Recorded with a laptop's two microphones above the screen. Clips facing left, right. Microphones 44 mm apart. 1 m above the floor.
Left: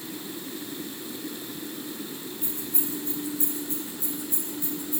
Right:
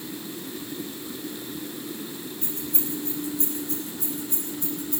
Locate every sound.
2.4 s keys jangling: 75° right (ahead or behind), 5 m